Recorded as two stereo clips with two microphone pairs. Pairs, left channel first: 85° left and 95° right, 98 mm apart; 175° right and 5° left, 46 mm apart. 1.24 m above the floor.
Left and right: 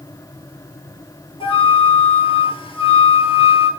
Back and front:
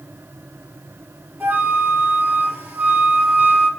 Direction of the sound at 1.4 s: 60° left.